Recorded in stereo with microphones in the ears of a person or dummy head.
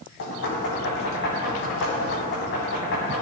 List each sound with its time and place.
0.2 s knocking: 65° left (ahead or behind), 2.5 m